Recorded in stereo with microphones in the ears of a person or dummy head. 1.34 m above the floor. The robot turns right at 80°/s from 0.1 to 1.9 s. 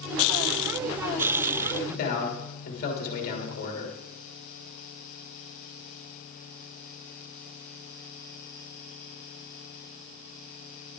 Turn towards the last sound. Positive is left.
turn(degrees=50)  # may be behind; listen again after turning